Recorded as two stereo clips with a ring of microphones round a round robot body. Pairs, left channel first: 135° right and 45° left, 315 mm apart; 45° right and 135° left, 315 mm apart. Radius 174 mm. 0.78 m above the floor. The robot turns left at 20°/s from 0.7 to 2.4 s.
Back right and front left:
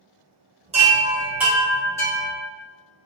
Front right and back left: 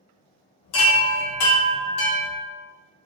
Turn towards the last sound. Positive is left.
turn(degrees=-60)